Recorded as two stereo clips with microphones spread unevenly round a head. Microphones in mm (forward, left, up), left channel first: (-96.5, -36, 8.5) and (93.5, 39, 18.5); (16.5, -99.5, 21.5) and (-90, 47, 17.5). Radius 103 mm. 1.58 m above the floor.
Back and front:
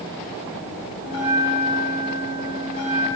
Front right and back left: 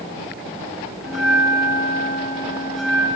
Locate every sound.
1.0 s a bell: 140° right, 2.0 m